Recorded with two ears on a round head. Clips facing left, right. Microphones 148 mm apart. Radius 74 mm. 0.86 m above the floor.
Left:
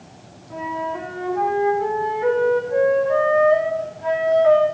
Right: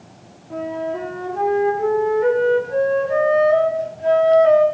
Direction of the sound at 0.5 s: 35° right (ahead or behind).